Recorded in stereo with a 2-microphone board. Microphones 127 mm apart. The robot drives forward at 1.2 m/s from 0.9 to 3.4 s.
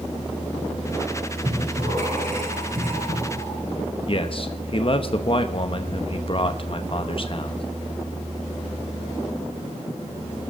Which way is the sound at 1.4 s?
75° right (ahead or behind).